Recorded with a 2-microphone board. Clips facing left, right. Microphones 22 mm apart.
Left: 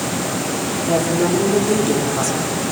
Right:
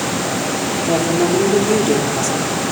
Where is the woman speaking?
40° right (ahead or behind), 8 m.